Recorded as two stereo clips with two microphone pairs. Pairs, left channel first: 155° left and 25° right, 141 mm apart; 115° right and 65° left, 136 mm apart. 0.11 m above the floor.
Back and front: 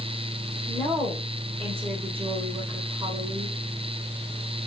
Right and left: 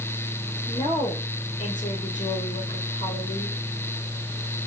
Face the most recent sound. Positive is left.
turn(degrees=-65)